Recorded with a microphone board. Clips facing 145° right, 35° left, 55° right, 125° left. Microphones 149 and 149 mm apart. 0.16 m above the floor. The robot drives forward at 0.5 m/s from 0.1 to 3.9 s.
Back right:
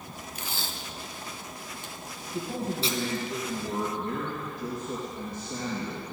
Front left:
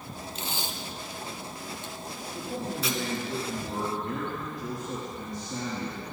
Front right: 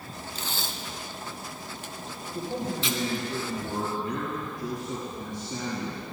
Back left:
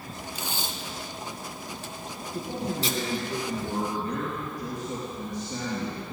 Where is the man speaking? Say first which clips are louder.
Back right 3 dB, even; 170° left, 4 m.